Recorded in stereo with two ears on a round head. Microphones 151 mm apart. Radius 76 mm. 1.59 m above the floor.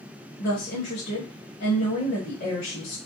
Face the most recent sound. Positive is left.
turn(degrees=70)  # may be behind; listen again after turning